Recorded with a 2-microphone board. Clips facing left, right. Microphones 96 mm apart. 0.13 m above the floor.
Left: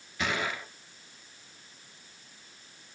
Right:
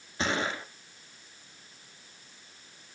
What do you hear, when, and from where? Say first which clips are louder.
0.2 s a gunshot: right 2 dB; 30° right (ahead or behind), 1.7 m